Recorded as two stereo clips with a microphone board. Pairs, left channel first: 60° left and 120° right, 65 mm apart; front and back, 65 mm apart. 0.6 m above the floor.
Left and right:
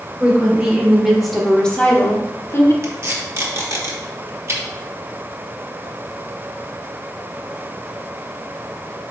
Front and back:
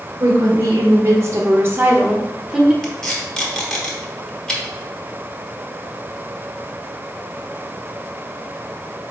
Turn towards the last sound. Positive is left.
turn(degrees=-75)